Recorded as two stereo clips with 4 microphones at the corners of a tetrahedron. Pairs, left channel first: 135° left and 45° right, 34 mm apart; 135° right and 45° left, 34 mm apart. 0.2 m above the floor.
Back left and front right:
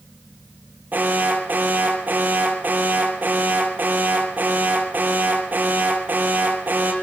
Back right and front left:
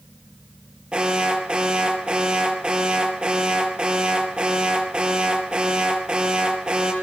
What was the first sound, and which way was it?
An alarm, 10° right.